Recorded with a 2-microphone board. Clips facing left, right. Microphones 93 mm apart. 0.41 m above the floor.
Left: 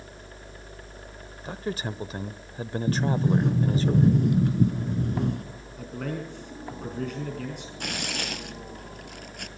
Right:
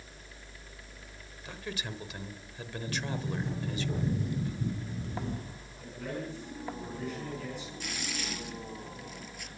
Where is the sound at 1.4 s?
35° left (ahead or behind), 1.2 m.